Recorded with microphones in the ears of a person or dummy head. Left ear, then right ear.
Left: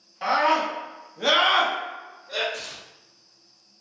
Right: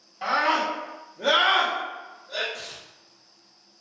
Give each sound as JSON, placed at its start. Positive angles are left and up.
{"t": 0.2, "sound": "a scream", "side_deg": 0, "distance_m": 0.9}
{"t": 2.5, "sound": "tearing paper", "side_deg": 85, "distance_m": 0.7}